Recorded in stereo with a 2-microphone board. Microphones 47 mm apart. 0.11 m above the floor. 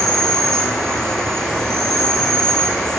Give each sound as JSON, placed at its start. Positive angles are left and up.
{"t": 0.0, "sound": "an insect", "side_deg": 10, "distance_m": 0.9}